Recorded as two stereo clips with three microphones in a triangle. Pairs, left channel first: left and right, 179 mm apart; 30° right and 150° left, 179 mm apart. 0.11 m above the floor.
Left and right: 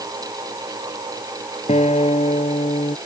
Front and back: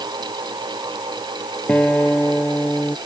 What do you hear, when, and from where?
1.7 s a guitar: 50° left